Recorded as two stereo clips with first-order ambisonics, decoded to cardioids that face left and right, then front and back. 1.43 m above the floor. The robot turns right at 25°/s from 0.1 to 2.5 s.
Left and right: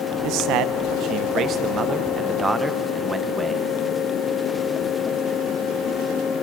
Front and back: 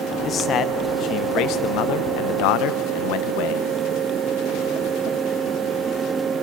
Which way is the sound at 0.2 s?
65° right.